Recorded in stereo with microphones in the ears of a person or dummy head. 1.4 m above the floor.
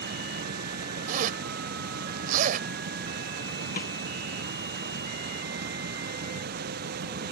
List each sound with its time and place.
0.0 s running water: 50° right (ahead or behind)
1.1 s a zipper: 50° right (ahead or behind)
3.8 s a snare drum: 55° left (ahead or behind)